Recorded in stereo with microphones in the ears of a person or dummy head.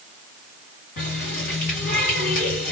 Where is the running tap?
60° left (ahead or behind), 1.9 m.